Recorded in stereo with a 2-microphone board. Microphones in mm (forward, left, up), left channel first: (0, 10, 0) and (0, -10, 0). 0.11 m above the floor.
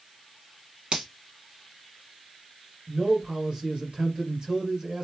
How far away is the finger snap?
About 1.8 m.